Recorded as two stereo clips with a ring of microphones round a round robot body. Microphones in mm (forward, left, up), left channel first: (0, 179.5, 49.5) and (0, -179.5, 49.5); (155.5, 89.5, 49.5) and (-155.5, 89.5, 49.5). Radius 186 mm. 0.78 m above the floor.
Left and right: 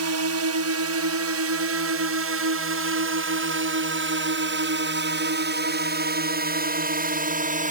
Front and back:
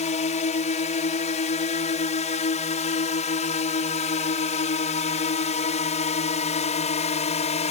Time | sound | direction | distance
0.0 | a drone | 65° right | ?